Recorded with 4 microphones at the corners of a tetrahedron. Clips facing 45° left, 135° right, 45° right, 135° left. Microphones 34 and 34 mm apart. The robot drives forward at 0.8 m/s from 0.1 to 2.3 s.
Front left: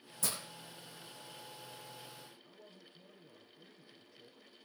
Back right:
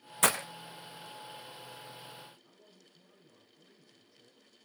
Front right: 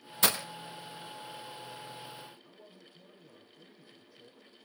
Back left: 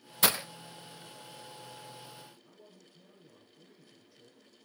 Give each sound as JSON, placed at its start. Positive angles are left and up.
{"t": 0.2, "sound": "breaking glass", "azimuth_deg": -135, "distance_m": 0.6}
{"t": 2.4, "sound": "a man speaking", "azimuth_deg": 25, "distance_m": 2.5}